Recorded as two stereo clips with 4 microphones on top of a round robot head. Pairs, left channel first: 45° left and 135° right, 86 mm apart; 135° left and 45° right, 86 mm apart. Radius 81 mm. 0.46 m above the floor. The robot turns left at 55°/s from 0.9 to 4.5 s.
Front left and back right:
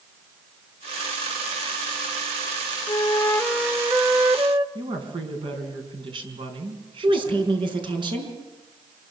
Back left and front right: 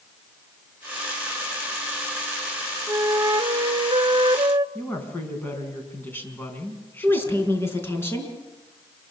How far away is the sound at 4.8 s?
About 5 m.